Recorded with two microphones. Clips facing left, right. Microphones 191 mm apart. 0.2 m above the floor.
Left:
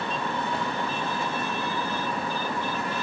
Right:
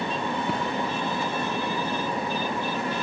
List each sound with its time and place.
0.5 s a thud: 80° right, 5.5 m